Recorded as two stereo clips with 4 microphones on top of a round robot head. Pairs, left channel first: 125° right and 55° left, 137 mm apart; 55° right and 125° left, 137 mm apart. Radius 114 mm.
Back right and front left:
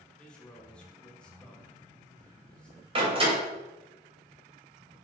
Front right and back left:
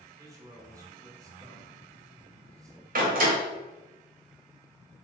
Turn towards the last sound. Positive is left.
turn(degrees=105)